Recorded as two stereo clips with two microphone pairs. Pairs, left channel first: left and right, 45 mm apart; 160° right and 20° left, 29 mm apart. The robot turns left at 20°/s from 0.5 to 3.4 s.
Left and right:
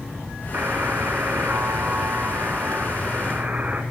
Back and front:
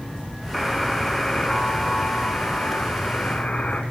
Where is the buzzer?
80° right, 2 m; by 3.8 s 135° right, 2 m.